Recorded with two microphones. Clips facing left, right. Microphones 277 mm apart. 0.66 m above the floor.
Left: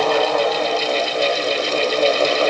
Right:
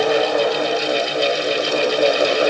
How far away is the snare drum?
I don't hear a snare drum.